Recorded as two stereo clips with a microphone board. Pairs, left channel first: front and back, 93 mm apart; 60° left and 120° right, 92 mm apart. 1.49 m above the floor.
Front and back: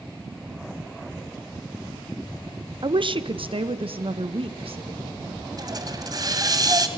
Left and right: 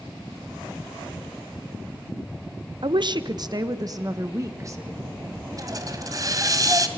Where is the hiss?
155° right, 2.0 m.